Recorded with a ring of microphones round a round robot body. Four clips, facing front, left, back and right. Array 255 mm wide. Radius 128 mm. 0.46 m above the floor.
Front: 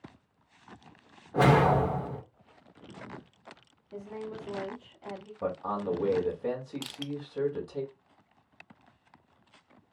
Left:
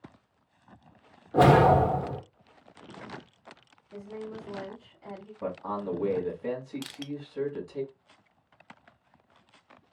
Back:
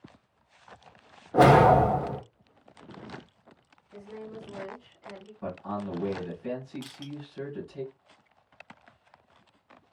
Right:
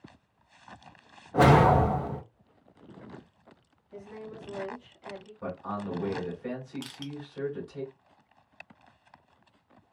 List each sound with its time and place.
1.3 s a whoosh: 140° left, 1.3 m
3.9 s a woman speaking: 35° left, 2.5 m
5.4 s a man speaking: 25° left, 2 m
6.8 s crushing: 30° left, 0.5 m